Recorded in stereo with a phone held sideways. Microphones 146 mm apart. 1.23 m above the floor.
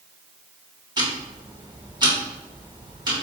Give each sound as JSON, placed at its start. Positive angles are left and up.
{"t": 1.0, "sound": "ticking", "side_deg": -30, "distance_m": 1.1}